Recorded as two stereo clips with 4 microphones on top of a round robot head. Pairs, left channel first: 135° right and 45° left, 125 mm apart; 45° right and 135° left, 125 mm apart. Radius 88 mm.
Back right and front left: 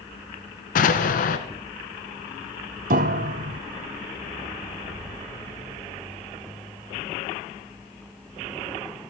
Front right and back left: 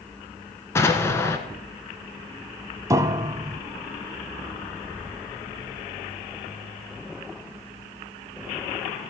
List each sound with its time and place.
0.8 s an explosion: 120° right, 0.9 m
2.9 s a piano: 65° left, 0.5 m